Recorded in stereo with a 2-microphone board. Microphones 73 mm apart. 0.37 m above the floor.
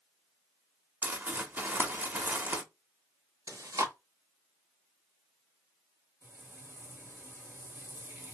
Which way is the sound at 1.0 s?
30° right (ahead or behind).